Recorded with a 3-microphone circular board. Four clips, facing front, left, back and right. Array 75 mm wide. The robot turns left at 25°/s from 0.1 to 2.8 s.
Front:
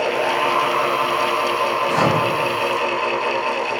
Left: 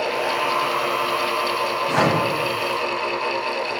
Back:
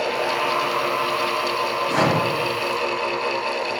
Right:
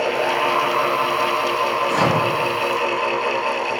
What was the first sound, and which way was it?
A microwave, 75° left.